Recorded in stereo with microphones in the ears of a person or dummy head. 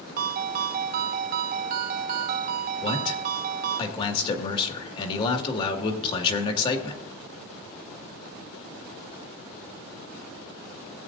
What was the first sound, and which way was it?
A ringtone, 50° right (ahead or behind).